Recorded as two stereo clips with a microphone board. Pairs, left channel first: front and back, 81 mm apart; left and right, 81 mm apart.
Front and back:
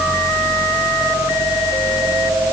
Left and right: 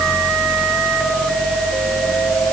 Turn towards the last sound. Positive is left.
No sound to turn to.